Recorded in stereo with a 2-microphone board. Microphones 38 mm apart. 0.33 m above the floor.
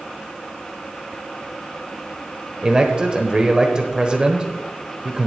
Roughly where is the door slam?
No door slam in this recording.